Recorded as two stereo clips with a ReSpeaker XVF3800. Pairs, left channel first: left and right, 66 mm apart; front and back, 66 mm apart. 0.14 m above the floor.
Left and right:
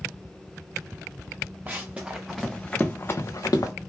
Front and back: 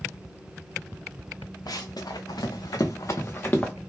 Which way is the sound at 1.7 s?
20° right.